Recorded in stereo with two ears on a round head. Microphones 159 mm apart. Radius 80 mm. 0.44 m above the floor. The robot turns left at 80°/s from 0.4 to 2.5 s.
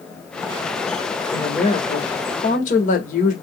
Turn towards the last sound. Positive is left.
turn(degrees=70)